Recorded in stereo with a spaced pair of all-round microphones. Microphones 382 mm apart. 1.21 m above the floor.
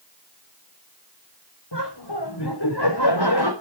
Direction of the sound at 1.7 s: 85° left.